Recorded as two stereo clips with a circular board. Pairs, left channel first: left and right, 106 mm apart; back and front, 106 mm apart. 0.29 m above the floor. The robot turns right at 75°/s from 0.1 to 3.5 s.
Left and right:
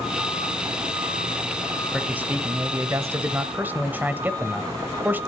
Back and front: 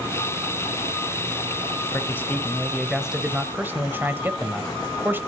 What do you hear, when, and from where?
1.9 s a man speaking: 160° right, 0.9 m; by 5.2 s 45° right, 0.9 m